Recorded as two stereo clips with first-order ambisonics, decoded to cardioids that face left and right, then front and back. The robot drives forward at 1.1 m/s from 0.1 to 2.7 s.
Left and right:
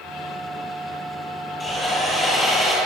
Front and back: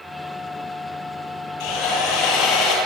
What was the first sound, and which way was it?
Sawing, 15° left.